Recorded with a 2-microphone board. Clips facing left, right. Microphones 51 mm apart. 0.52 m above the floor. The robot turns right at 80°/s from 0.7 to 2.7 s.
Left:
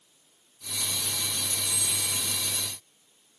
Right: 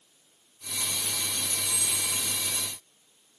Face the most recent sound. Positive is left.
turn(degrees=75)